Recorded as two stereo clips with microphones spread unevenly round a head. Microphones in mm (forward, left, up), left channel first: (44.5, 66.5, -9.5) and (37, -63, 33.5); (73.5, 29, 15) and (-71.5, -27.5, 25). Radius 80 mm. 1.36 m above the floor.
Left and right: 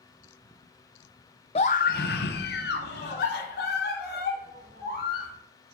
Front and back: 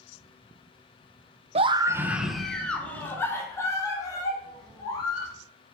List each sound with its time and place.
1.6 s a scream: 150° left, 0.6 m; by 5.3 s 90° left, 3 m